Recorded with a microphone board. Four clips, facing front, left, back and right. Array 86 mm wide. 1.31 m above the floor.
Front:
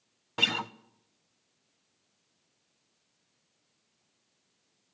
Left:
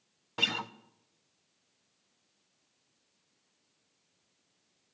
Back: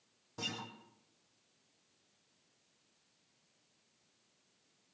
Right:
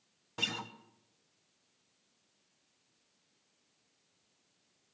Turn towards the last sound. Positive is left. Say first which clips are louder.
# left 5 dB, front 11 dB
turn(degrees=20)